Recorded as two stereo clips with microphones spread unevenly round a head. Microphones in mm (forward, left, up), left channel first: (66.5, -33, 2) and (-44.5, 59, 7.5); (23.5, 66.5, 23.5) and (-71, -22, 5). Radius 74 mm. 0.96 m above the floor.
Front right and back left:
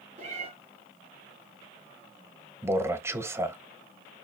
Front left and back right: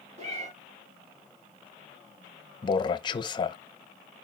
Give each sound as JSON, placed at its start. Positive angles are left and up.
{"t": 0.2, "sound": "a cat meowing", "azimuth_deg": -175, "distance_m": 5.5}
{"t": 2.6, "sound": "a man speaking", "azimuth_deg": 80, "distance_m": 0.8}